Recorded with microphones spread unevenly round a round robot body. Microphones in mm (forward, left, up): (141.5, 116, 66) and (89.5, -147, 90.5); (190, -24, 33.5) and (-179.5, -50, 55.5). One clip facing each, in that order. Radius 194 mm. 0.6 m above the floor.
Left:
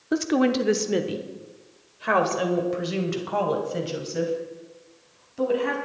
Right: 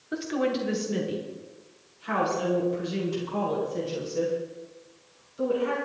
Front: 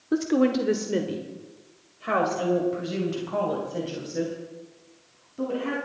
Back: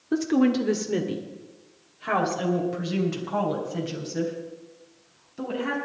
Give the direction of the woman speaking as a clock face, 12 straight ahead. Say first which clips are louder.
Left 6 dB, back 1 dB; 9 o'clock.